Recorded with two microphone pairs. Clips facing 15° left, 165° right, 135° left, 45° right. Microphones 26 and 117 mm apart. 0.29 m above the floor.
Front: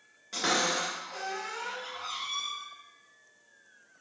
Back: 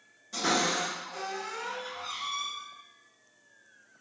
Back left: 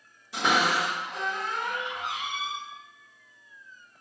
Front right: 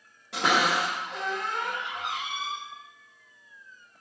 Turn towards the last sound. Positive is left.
turn(degrees=-35)